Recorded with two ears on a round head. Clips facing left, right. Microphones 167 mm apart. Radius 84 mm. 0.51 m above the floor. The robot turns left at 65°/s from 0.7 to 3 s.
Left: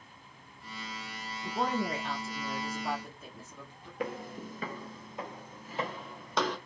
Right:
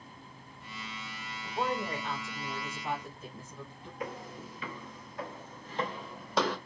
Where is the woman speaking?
85° left, 1.3 m; by 3.9 s 15° right, 1.3 m.